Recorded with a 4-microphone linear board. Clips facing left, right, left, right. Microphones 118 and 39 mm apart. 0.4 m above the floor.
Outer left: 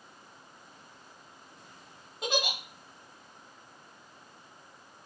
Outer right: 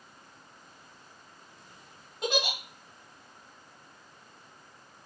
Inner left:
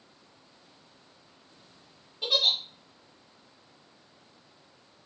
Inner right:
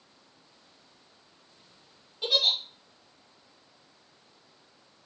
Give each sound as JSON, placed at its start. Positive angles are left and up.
{"t": 2.2, "sound": "a giggle", "side_deg": 0, "distance_m": 1.1}